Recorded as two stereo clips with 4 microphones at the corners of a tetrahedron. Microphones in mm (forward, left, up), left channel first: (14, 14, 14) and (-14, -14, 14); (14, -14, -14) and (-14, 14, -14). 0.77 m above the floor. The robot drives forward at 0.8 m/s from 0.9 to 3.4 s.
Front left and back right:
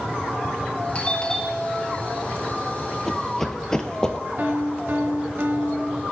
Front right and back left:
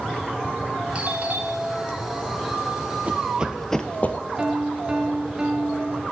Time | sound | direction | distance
0.9 | a doorbell | 90° left | 1.4 m
3.1 | running footsteps | 120° left | 0.9 m
4.4 | a piano | 160° right | 0.9 m